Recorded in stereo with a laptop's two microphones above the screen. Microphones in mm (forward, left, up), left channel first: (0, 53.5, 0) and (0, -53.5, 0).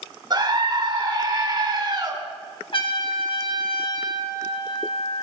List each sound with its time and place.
0.3 s a scream: 40° right (ahead or behind), 3 m
2.7 s a trumpet: 50° left (ahead or behind), 1.8 m